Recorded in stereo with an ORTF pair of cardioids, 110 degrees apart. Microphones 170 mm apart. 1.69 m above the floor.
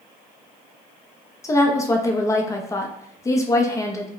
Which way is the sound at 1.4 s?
20° left.